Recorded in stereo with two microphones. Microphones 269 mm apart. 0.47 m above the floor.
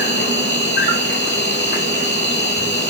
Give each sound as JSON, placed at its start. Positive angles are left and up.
{"t": 0.0, "sound": "an insect", "side_deg": 35, "distance_m": 1.3}